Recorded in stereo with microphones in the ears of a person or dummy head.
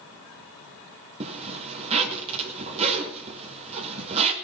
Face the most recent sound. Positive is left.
turn(degrees=-35)  # may be behind; listen again after turning